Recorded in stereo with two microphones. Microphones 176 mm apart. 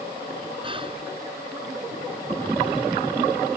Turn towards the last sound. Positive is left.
turn(degrees=-30)  # may be behind; listen again after turning